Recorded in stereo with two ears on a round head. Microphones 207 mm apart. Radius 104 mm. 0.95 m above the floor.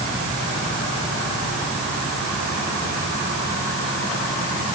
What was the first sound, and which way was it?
Only background noise.